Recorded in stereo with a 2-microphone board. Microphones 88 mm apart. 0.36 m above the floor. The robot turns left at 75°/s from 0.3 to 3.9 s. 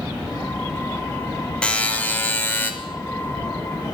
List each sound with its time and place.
1.6 s a buzzer: 10° left (ahead or behind), 0.9 m; by 2.7 s 20° left (ahead or behind), 0.9 m